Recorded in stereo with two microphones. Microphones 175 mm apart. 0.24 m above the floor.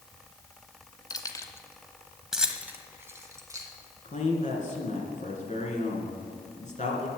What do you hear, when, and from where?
1.1 s keys jangling: 25° left (ahead or behind), 1.2 m; by 3.7 s 20° right (ahead or behind), 1.9 m
4.0 s a man speaking: 45° left (ahead or behind), 3 m